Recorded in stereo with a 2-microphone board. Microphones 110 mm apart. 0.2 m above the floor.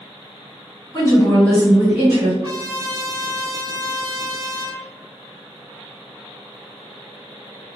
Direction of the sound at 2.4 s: 45° right (ahead or behind).